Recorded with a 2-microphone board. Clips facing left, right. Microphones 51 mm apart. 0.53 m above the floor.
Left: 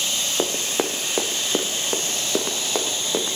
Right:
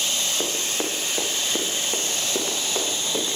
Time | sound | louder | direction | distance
0.4 | running footsteps | left 3 dB | 70° left (ahead or behind) | 2.5 m